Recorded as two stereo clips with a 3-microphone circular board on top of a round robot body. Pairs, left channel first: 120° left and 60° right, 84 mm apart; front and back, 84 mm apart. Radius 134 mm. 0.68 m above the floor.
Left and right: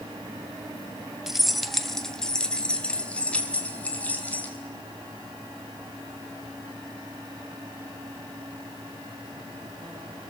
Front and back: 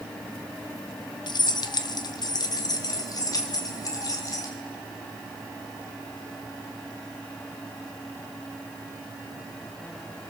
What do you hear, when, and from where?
1.3 s keys jangling: 25° left, 1.1 m; by 4.5 s 50° left, 2.5 m